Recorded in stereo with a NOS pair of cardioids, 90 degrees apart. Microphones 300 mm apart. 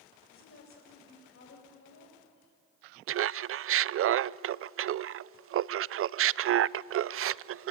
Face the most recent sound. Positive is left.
turn(degrees=-45)